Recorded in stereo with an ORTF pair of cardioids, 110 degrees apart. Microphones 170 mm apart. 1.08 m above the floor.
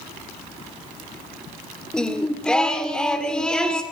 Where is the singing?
5° left, 1.6 m.